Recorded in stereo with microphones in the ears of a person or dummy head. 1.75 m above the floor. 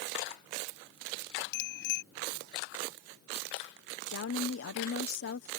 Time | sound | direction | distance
1.5 | a bicycle bell | 65° left (ahead or behind) | ?
4.1 | a woman speaking | 70° left (ahead or behind) | ?